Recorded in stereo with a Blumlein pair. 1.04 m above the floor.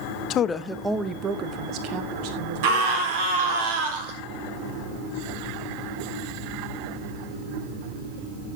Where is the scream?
50° right, 4 m.